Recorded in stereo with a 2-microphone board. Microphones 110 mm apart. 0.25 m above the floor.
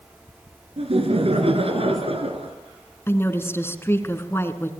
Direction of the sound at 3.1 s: 20° left (ahead or behind).